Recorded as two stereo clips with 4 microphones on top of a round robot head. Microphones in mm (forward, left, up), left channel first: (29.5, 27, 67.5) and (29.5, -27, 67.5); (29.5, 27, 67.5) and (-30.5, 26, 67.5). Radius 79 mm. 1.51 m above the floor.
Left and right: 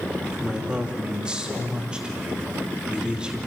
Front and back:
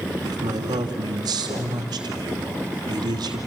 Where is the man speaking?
170° right, 2.5 m.